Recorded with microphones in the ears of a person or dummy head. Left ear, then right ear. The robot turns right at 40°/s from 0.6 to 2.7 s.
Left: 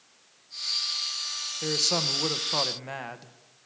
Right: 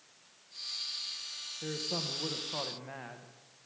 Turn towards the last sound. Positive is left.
turn(degrees=95)